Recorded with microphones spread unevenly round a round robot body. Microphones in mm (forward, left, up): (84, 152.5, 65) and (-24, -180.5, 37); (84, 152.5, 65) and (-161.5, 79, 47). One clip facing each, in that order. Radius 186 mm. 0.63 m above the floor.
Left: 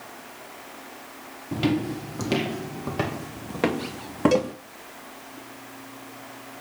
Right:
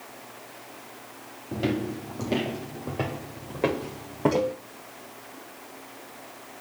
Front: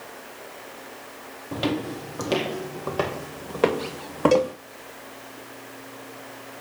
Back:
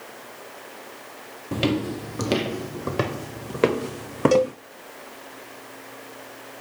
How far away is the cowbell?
About 3 m.